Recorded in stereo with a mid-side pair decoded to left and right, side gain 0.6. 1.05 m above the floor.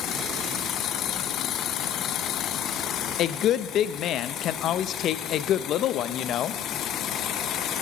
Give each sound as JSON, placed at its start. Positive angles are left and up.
{"t": 3.2, "sound": "a woman speaking", "azimuth_deg": 55, "distance_m": 0.6}